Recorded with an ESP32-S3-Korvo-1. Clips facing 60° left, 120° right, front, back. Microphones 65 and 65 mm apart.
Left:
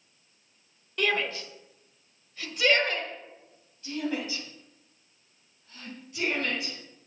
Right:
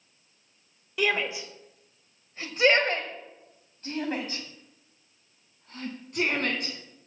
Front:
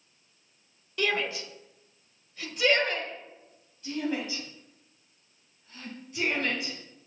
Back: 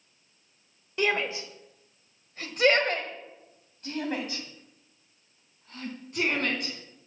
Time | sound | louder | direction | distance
1.0 | a shout | right 1 dB, back 2 dB | 165° left | 1.2 m